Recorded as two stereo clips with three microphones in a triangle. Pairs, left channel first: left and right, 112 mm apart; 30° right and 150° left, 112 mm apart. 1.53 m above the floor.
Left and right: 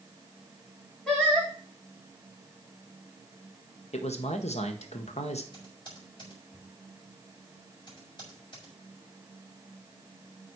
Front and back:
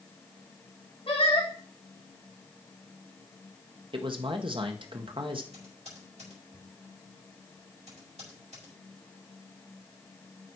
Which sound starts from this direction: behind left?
Typing on a keyboard, at 5.5 s.